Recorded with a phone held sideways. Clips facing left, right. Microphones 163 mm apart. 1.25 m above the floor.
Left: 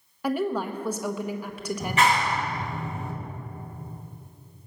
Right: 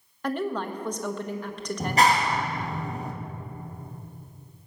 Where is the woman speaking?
10° left (ahead or behind), 1.2 m.